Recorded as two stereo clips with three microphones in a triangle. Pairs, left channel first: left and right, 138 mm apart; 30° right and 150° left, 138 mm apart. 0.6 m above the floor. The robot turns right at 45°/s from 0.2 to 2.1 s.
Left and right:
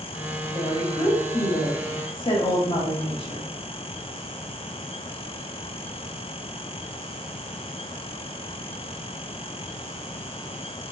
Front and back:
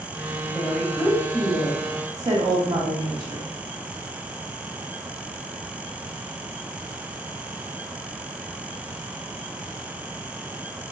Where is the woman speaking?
35° left, 1.3 m; by 3.5 s 105° left, 1.3 m.